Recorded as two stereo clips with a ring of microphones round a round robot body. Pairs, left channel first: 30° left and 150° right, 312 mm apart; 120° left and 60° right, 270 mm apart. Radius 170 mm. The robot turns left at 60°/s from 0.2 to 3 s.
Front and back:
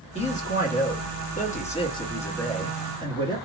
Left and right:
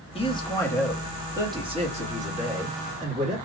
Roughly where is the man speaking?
Left.